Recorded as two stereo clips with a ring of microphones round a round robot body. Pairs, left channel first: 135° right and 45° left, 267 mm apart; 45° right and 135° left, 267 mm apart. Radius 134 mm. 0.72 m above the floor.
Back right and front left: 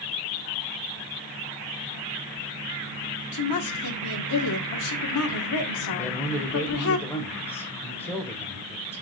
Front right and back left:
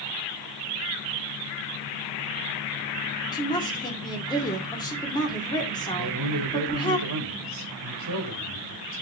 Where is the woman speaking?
120° right, 1.7 m.